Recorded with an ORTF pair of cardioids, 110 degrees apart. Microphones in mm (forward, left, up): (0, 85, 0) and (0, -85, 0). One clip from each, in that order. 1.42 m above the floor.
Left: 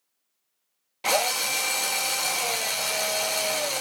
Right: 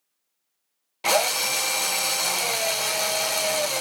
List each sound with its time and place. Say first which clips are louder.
1.0 s a drill: right 2 dB; 10° right, 0.6 m